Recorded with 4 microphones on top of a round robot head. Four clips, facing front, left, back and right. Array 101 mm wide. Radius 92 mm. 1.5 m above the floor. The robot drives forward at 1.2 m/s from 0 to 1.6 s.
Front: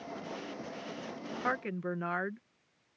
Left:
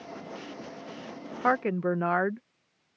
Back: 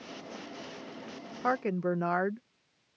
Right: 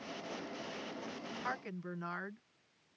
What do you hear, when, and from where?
1.4 s a woman speaking: 105° left; by 2.4 s 115° left